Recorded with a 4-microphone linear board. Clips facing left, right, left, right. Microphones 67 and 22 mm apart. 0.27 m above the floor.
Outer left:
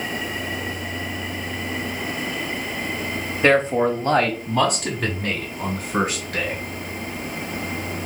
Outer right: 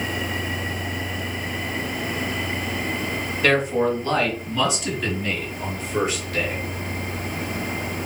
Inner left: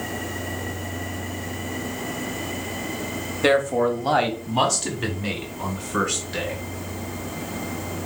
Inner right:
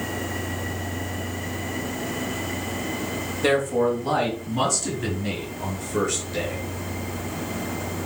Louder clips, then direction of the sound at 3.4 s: Outer left 3 dB, inner left 2 dB; 25° left (ahead or behind).